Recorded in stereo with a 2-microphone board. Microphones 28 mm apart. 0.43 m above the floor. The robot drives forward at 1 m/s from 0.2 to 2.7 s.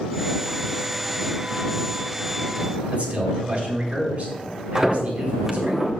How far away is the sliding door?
About 1.2 m.